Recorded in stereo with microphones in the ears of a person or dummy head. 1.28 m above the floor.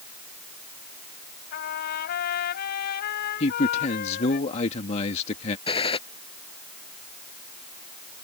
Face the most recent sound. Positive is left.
turn(degrees=25)  # may be behind; listen again after turning